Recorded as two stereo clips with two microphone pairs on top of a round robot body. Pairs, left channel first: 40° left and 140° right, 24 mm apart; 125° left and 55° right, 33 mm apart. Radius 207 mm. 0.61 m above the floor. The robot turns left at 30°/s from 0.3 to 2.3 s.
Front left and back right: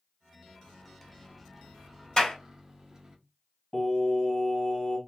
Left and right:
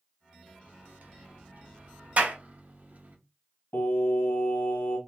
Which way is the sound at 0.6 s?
30° right.